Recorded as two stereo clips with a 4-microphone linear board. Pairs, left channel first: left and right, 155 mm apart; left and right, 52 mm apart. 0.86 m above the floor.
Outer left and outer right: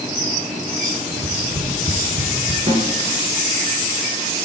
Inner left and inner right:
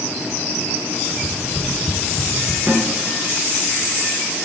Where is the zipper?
No zipper in this recording.